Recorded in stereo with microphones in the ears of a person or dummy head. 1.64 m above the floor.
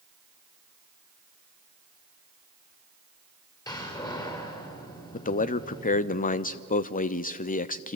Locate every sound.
3.7 s a door slam: 20° left (ahead or behind), 5.5 m
5.1 s a man speaking: 40° left (ahead or behind), 0.8 m